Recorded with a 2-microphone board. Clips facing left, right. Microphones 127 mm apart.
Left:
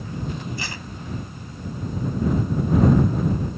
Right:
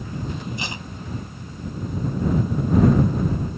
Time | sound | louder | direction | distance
0.6 | tape being pulled | right 1 dB | 20° right (ahead or behind) | ?